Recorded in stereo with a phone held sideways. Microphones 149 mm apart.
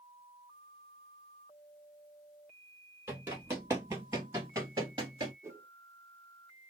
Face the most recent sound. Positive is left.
turn(degrees=-20)  # may be behind; listen again after turning